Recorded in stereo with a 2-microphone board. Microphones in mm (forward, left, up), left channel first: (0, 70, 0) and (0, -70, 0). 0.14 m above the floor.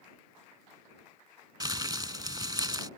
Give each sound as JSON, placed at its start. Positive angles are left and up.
{"t": 1.6, "sound": "crumpling", "side_deg": -30}